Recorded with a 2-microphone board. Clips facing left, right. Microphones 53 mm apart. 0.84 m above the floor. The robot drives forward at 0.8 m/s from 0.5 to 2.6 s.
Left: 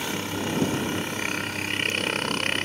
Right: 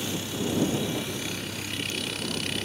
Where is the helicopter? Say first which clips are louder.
Left 2 dB; 50° left (ahead or behind).